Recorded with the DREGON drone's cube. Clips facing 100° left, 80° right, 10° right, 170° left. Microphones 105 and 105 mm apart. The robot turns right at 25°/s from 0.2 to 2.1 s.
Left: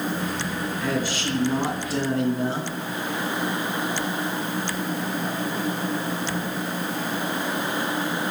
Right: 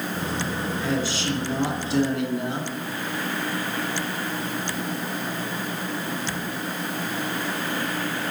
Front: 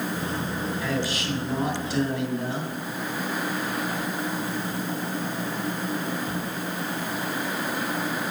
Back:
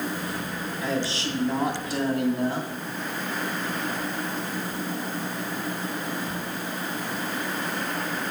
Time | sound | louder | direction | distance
0.8 | a man speaking | even, back 4 dB | 110° left | 2 m